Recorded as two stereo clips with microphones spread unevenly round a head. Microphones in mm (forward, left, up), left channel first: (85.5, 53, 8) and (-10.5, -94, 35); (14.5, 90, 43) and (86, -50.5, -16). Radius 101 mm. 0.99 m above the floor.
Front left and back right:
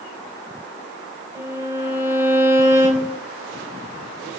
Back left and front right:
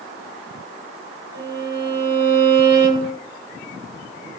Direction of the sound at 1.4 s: 50° right.